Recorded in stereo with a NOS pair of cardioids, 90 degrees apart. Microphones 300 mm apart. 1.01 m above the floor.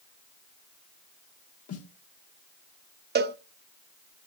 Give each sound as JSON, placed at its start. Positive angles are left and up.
{"t": 1.7, "sound": "a snare drum", "azimuth_deg": 55, "distance_m": 1.2}
{"t": 3.1, "sound": "a cowbell", "azimuth_deg": -35, "distance_m": 0.7}